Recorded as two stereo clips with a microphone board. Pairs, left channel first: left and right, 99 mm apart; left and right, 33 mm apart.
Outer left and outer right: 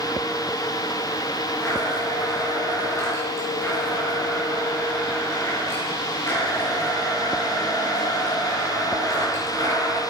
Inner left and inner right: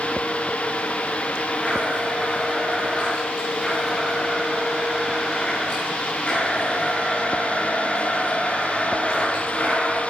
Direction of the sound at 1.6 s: 30° left (ahead or behind).